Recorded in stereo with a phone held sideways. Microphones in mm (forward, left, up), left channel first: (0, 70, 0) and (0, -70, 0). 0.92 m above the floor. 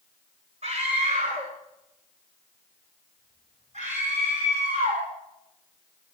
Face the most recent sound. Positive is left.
turn(degrees=-55)  # may be behind; listen again after turning